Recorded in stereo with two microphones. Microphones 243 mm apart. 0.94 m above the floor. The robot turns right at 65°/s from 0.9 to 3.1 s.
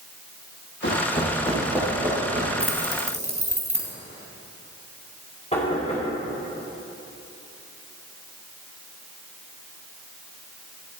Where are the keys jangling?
5° left (ahead or behind), 2.5 m; by 3.9 s 30° right (ahead or behind), 2.5 m.